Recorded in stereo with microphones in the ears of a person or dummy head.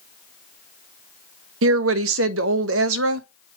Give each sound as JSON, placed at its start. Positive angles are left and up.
{"t": 1.6, "sound": "a woman speaking", "side_deg": -85, "distance_m": 0.7}